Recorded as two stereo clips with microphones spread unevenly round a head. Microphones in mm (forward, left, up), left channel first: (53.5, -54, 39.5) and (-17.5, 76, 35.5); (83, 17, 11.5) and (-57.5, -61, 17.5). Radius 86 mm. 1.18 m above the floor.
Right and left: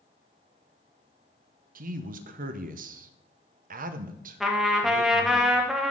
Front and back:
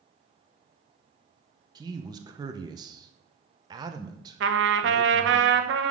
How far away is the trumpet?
About 1.0 m.